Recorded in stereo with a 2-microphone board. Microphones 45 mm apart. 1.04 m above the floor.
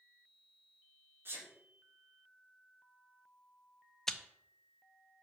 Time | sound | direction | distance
1.2 | a sneeze | 55° right (ahead or behind) | 3 m
4.1 | chewing | 10° left (ahead or behind) | 0.6 m